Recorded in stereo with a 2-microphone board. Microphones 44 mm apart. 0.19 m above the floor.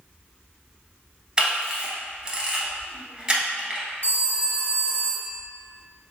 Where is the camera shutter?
20° right (ahead or behind), 1.3 m.